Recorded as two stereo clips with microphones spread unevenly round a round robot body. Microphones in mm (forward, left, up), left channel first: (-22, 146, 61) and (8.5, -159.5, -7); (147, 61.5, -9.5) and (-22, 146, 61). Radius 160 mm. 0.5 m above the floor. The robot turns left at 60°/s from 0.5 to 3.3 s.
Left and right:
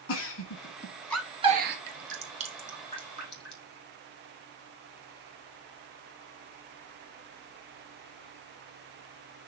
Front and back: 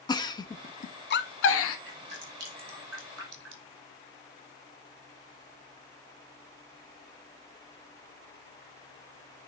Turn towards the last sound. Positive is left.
turn(degrees=150)